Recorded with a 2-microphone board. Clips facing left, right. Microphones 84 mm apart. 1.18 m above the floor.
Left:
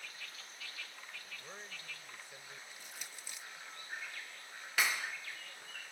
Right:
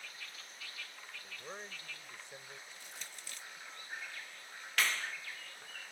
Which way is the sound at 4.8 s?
10° left (ahead or behind).